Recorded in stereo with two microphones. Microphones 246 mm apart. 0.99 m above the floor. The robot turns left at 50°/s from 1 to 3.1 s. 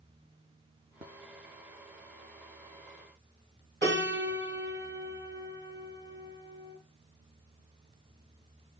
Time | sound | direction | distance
3.8 | a piano | 45° right (ahead or behind) | 1.1 m